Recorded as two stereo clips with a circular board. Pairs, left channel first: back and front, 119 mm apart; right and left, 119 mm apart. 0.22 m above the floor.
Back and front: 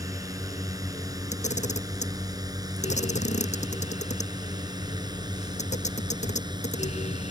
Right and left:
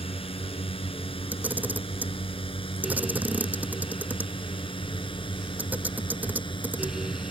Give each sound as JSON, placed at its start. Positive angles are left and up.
{"t": 0.0, "sound": "a drone", "azimuth_deg": -60}
{"t": 1.3, "sound": "a camera shutter", "azimuth_deg": 165}